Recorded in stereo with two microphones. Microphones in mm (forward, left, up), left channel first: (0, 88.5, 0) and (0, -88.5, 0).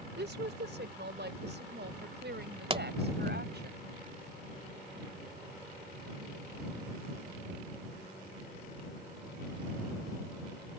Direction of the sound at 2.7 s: 35° right (ahead or behind).